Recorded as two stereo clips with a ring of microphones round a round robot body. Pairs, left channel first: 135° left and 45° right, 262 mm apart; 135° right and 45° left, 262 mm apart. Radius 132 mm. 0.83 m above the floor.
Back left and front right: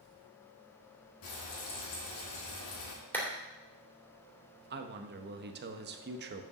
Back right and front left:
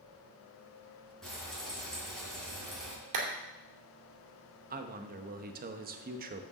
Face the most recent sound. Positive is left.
turn(degrees=-5)